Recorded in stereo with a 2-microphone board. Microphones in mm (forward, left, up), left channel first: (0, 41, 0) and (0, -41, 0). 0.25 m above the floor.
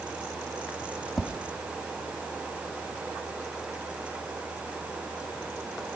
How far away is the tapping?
About 0.8 m.